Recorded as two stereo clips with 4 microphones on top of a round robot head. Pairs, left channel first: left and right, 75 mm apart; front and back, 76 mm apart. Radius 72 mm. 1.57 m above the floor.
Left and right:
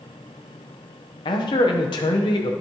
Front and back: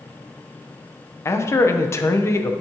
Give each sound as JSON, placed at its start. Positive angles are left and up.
{"t": 1.2, "sound": "a man speaking", "azimuth_deg": 55, "distance_m": 0.8}